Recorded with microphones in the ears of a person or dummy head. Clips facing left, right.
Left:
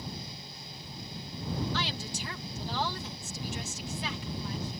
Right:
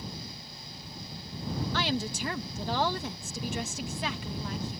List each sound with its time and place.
1.7 s a woman speaking: 55° right (ahead or behind)